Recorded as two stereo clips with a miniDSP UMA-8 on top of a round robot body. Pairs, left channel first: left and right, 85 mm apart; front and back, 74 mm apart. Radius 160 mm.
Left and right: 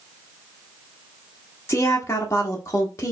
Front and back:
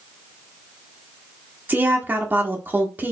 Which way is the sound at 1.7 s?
130° left.